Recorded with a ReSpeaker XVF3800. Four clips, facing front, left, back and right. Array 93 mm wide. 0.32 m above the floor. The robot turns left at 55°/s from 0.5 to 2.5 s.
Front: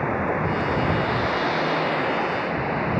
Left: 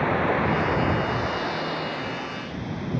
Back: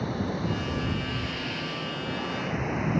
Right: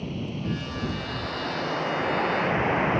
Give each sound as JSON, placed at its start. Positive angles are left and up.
{"t": 0.0, "sound": "running water", "azimuth_deg": 55}